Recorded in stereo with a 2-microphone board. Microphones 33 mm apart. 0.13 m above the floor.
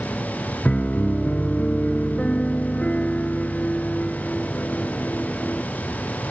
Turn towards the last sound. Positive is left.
turn(degrees=40)  # may be behind; listen again after turning